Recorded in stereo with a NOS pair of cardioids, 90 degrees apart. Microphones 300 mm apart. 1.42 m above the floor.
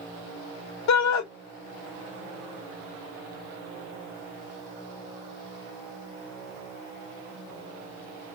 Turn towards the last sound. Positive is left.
turn(degrees=70)